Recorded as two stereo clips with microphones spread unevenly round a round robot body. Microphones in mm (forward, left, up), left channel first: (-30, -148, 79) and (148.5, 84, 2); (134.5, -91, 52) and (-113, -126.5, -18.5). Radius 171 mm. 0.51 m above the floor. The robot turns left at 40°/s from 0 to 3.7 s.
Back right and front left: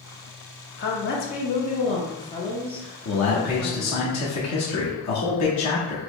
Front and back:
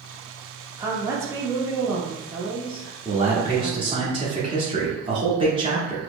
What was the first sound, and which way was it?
A woman speaking, 160° right.